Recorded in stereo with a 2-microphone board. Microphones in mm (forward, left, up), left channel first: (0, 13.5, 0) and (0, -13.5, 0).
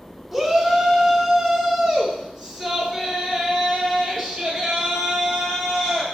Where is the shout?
Centre (ahead or behind), 1.6 m; by 6.0 s 5° right (ahead or behind), 4 m.